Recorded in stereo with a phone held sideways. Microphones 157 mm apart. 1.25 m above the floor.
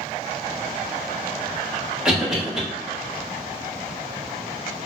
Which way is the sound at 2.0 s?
5° right (ahead or behind).